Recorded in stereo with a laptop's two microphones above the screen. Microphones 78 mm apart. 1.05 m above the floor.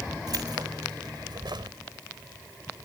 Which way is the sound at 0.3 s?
60° right (ahead or behind).